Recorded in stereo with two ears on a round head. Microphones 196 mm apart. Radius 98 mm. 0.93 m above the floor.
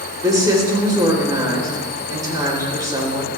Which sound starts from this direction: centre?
A woman speaking, at 0.2 s.